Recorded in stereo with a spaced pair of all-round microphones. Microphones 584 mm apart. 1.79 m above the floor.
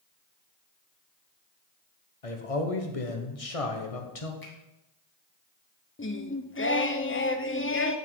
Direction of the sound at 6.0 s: 25° left (ahead or behind).